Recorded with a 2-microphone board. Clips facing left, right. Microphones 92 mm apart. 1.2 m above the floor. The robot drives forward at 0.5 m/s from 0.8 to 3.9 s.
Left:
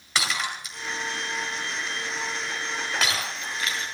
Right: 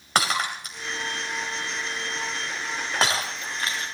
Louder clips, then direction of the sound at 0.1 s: Right 4 dB; 50° right (ahead or behind).